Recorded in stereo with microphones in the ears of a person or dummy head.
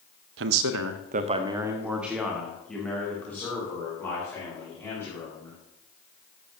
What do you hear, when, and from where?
0.4 s a man speaking: 65° right (ahead or behind), 0.8 m; by 5.6 s 10° left (ahead or behind), 5 m